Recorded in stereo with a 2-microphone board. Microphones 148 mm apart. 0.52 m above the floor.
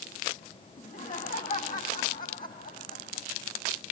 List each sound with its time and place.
0.8 s laughter: 60° left (ahead or behind), 4.5 m; by 3.3 s 75° left (ahead or behind), 4.5 m